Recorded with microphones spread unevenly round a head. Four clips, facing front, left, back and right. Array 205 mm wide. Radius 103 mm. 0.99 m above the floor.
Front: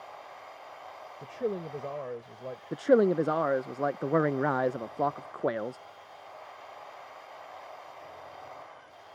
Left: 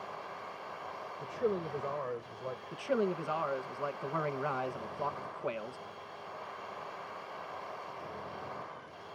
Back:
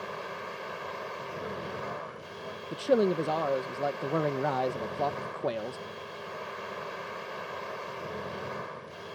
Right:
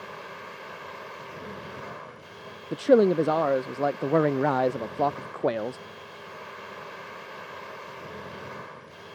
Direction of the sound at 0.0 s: 145° right.